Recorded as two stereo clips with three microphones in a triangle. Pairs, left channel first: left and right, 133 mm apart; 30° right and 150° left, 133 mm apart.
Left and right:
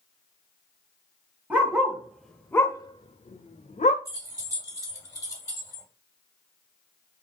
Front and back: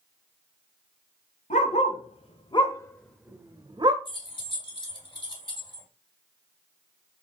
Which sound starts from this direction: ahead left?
Keys jangling, at 4.0 s.